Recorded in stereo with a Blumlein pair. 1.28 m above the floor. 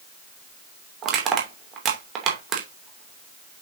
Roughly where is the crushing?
Ahead right.